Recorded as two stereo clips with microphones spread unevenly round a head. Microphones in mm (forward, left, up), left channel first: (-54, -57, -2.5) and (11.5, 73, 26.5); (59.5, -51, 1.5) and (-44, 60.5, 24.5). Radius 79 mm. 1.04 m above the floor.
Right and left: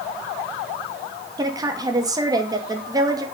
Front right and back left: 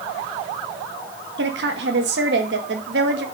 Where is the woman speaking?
130° left, 1.9 m.